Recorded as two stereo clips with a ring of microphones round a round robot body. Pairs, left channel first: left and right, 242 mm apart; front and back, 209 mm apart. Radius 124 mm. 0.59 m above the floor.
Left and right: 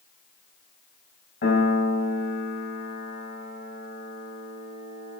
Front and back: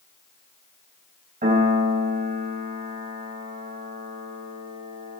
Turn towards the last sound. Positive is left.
turn(degrees=135)